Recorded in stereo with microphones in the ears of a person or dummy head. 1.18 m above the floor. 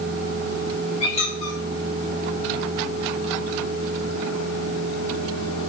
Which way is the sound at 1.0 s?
40° left (ahead or behind).